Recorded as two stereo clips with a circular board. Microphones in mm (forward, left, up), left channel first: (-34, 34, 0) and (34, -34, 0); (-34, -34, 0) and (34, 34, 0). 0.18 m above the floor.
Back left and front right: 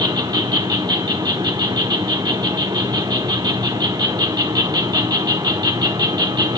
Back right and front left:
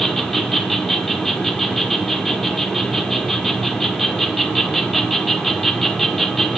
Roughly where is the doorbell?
No doorbell in this recording.